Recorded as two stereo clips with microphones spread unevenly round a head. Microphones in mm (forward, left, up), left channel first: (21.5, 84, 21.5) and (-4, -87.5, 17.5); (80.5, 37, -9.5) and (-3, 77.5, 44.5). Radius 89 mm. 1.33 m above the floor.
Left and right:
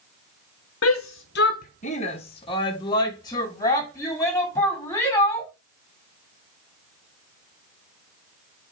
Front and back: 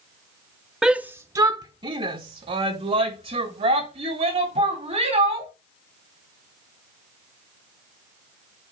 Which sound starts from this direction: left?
A shout, at 0.8 s.